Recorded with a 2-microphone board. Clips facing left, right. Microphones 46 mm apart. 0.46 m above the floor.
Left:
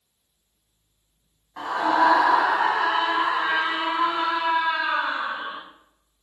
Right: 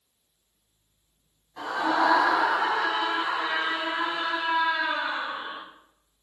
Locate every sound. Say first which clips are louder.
1.6 s a scream: left 4 dB; 35° left (ahead or behind), 3 m; by 5.6 s 60° left (ahead or behind), 5 m